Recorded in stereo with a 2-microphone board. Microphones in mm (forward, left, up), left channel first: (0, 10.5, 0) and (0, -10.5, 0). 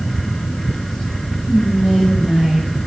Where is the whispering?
45° right (ahead or behind), 1.8 m.